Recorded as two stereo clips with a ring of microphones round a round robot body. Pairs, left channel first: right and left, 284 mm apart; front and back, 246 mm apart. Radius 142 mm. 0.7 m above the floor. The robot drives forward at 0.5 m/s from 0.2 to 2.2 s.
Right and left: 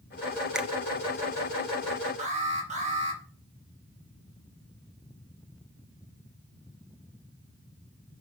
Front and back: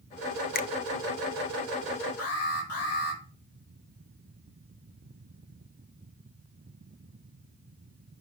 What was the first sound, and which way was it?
A finger snap, 5° left.